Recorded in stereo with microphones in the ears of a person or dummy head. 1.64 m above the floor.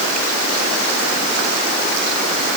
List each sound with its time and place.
Only background noise.